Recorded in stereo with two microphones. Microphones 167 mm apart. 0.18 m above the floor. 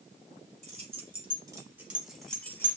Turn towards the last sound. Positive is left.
turn(degrees=15)  # may be behind; listen again after turning